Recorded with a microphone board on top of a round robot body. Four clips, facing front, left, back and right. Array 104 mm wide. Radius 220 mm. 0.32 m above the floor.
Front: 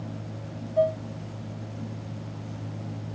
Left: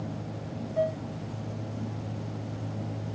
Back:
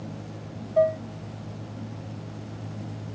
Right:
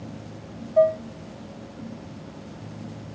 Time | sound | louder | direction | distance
0.8 | dishes clattering | right 10 dB, back 2 dB | 150° right | 1.0 m